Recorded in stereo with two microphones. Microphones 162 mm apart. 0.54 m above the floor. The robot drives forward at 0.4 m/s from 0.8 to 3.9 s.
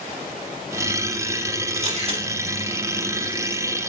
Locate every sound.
1.8 s a camera shutter: 40° right (ahead or behind), 1.5 m